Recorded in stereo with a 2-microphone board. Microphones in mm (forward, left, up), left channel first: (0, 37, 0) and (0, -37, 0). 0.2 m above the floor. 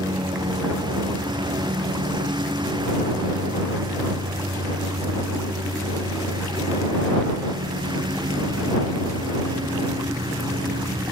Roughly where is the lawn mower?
Right.